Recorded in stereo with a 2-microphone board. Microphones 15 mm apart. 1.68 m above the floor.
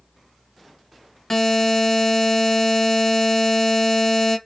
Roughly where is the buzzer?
Left.